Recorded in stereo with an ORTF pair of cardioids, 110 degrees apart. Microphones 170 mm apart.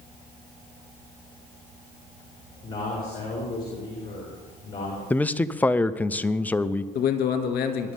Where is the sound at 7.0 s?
65° left, 2 m.